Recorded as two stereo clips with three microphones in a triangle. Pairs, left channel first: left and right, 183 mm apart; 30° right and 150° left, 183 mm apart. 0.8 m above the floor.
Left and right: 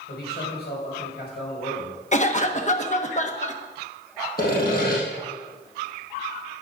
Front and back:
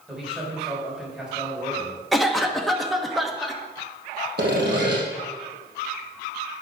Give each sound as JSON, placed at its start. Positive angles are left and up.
{"t": 0.1, "sound": "a man speaking", "azimuth_deg": 65, "distance_m": 5.5}
{"t": 2.1, "sound": "a cough", "azimuth_deg": 60, "distance_m": 1.1}
{"t": 4.4, "sound": "sawing", "azimuth_deg": 125, "distance_m": 4.0}